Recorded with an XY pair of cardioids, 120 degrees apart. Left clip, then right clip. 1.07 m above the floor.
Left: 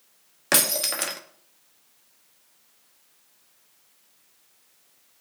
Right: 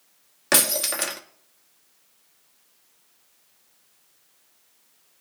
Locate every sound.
0.5 s breaking glass: 5° right, 1.0 m